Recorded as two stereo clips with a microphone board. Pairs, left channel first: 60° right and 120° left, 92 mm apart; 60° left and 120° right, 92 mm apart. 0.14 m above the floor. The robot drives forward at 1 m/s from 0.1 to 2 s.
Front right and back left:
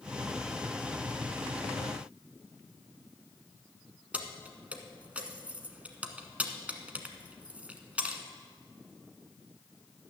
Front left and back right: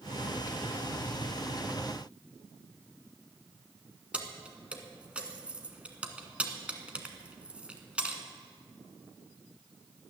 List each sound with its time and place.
4.1 s keys jangling: straight behind, 1.2 m